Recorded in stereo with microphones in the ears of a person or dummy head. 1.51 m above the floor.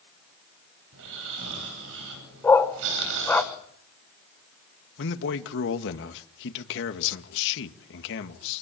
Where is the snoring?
70° right (ahead or behind), 10 m.